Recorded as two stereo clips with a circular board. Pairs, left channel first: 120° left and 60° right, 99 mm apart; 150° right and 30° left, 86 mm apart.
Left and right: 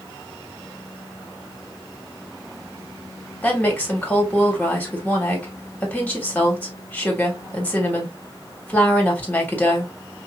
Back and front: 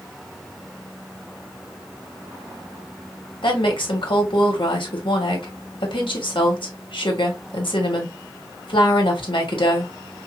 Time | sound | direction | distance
3.4 | a woman speaking | 165° right | 2 m